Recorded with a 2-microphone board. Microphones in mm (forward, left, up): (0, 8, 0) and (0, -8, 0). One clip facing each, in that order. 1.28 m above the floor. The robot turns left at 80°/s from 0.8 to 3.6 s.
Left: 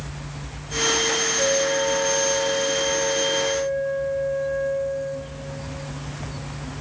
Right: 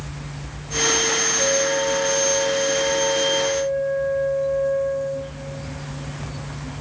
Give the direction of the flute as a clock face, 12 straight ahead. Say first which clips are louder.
Right 1 dB; 11 o'clock.